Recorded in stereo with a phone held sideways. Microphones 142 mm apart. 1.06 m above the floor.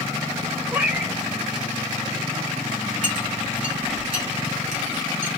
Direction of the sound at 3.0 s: 70° left (ahead or behind).